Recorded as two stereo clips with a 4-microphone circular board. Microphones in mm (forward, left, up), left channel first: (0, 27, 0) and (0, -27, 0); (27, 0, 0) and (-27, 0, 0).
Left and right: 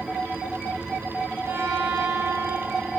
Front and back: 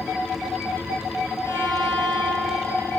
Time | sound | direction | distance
1.4 | a violin | 50° right | 7 m